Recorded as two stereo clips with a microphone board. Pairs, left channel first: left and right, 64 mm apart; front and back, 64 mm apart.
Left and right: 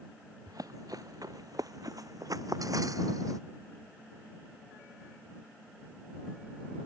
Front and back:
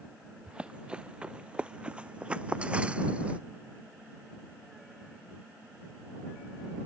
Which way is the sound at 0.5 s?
105° right.